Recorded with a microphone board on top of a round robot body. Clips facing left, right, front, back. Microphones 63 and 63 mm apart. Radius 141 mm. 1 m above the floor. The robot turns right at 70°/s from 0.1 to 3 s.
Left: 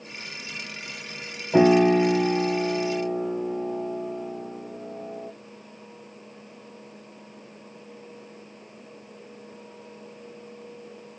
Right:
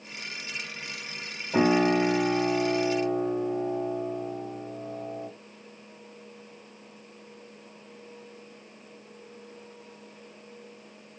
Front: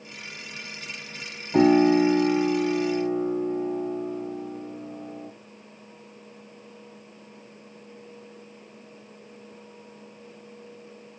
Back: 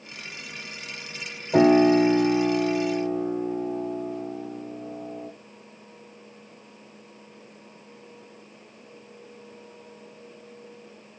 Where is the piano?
170° left, 2 m; by 5.3 s 90° right, 2 m.